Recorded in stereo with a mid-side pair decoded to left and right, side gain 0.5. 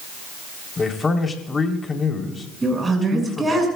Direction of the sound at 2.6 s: 20° right.